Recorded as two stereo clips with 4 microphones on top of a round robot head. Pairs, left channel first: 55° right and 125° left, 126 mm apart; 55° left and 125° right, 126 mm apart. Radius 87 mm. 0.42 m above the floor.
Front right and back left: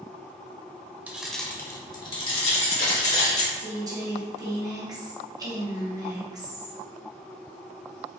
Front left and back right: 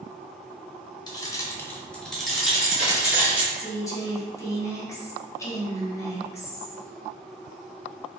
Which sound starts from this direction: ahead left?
Keys jangling, at 1.1 s.